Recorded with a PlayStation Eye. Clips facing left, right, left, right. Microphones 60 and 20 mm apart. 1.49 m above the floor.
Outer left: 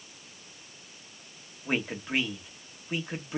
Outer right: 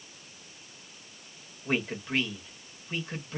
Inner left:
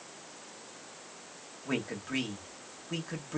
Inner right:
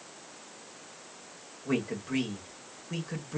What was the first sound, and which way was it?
A man speaking, 10° left (ahead or behind).